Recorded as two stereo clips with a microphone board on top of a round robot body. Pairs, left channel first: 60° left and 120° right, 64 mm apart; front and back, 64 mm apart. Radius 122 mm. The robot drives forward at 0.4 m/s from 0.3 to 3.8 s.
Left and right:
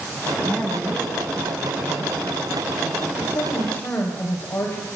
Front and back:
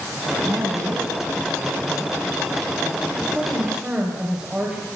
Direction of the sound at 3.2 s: 105° left.